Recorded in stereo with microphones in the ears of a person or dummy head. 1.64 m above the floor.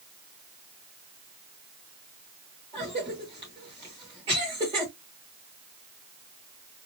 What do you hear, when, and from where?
2.7 s a cough: 30° right (ahead or behind), 1.8 m